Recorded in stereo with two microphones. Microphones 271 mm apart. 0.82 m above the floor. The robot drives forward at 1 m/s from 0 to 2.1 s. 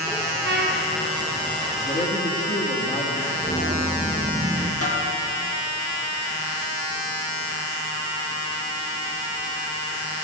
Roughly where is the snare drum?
Left.